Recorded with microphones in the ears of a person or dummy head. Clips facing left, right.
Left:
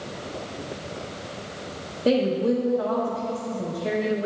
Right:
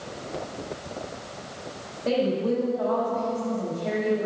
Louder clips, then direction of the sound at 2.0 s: Left 3 dB; 50° left (ahead or behind).